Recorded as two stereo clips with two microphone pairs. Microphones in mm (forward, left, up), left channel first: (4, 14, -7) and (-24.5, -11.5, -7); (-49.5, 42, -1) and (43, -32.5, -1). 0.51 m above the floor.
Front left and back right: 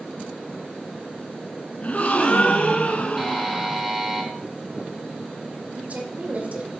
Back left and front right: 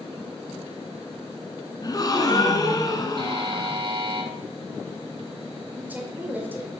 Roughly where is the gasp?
Left.